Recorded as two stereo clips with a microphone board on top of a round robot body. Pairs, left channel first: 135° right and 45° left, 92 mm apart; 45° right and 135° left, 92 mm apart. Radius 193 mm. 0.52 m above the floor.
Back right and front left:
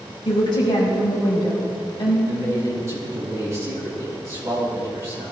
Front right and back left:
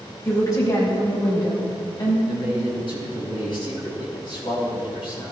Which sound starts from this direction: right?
A woman speaking, at 0.2 s.